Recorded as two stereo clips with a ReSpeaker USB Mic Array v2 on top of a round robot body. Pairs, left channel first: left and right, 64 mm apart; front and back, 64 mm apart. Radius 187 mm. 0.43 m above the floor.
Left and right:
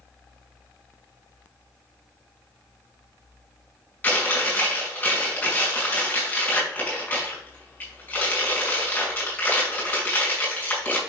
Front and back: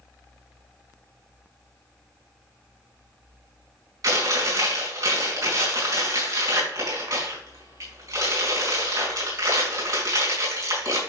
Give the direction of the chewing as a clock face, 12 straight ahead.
7 o'clock.